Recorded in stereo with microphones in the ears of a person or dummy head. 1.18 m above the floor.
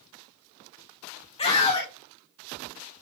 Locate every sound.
1.4 s a scream: 25° left (ahead or behind), 1.2 m